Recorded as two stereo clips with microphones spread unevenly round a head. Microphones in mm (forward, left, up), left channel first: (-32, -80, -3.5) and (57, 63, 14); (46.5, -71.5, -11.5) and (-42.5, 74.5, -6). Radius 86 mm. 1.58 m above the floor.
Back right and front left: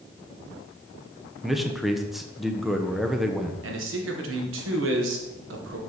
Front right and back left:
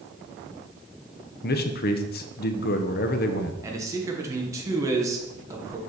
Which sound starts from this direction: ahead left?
A man speaking, at 3.6 s.